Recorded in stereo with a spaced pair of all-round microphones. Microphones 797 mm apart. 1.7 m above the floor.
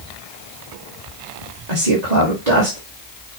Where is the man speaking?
55° right (ahead or behind), 2 m.